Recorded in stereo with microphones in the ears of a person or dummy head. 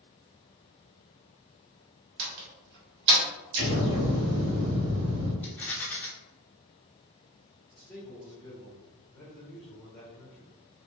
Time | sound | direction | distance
2.2 | a door slam | 60° right (ahead or behind) | 1.0 m
3.5 | an explosion | 60° right (ahead or behind) | 1.4 m
5.4 | a rattle | 10° left (ahead or behind) | 0.7 m
7.7 | a man speaking | 5° left (ahead or behind) | 1.0 m